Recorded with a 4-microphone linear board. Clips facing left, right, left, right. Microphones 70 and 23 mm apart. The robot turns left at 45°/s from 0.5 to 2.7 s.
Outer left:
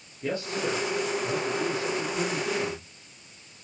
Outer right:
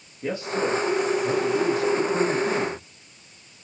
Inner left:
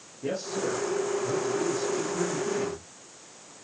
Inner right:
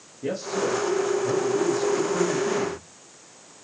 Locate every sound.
0.2 s a man speaking: 20° right, 6 m; by 2.8 s 115° right, 6 m